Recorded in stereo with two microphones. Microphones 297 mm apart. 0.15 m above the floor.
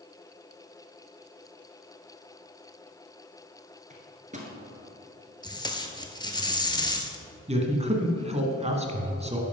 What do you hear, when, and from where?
3.9 s a microwave: 25° right (ahead or behind), 1.5 m
5.4 s tape being pulled: 15° left (ahead or behind), 0.8 m
7.5 s a man speaking: 20° right (ahead or behind), 1.1 m